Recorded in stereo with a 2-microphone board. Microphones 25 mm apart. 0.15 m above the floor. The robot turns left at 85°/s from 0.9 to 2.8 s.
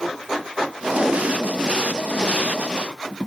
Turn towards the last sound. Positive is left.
turn(degrees=55)  # may be behind; listen again after turning